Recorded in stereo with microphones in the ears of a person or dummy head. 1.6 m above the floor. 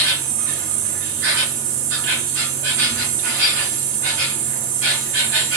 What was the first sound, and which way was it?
An insect, 50° right (ahead or behind).